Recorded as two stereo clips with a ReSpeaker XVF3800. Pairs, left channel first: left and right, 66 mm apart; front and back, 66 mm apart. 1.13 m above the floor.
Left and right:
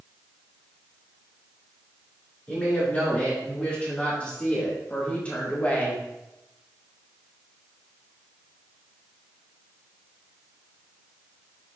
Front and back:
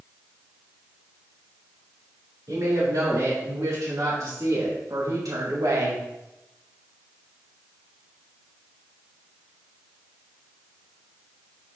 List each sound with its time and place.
2.5 s a woman speaking: 160° left, 3.5 m; by 6.0 s 155° left, 1.2 m